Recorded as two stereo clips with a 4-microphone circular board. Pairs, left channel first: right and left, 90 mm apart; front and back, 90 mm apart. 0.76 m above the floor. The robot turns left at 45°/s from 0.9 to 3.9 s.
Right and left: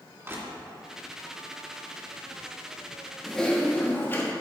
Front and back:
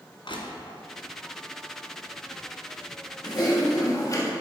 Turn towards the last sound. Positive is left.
turn(degrees=-35)